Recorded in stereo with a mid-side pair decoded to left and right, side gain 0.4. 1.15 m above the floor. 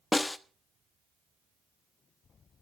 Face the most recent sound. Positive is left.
turn(degrees=20)